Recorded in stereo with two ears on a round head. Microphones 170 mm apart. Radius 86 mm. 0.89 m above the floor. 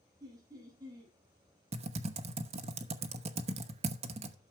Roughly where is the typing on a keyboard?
Right.